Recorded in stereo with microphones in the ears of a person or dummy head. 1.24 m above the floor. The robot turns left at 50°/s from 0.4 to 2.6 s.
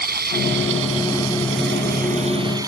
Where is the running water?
50° right; by 2.7 s 160° right.